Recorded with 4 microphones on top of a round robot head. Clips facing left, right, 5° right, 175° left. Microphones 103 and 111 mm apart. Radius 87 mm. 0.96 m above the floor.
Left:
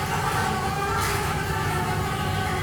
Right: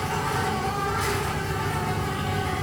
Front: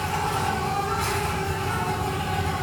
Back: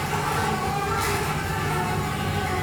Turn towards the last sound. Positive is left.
turn(degrees=165)